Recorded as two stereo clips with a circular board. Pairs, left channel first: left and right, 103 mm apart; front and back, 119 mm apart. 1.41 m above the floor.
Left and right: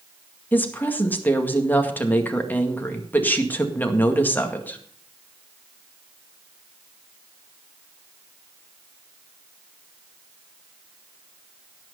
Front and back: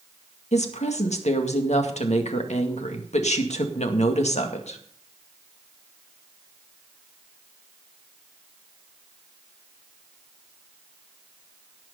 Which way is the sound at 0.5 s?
15° left.